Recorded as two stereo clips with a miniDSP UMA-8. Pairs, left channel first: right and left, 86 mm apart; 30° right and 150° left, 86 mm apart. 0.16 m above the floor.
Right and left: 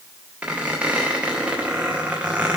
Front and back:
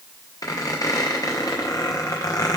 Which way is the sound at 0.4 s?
15° left.